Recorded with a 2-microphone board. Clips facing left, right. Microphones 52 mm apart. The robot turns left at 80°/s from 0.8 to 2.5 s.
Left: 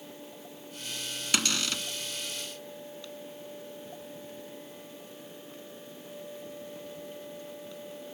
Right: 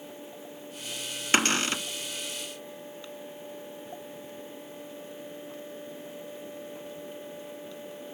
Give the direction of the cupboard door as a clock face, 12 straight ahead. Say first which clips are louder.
Right 6 dB; 3 o'clock.